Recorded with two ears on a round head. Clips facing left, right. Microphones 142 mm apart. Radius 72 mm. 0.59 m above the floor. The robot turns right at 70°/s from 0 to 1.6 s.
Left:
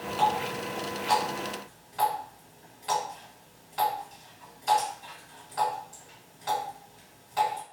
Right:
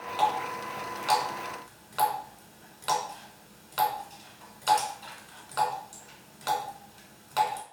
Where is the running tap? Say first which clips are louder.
Left 1 dB; 10° right (ahead or behind), 1.7 m; by 7.6 s 70° right (ahead or behind), 1.7 m.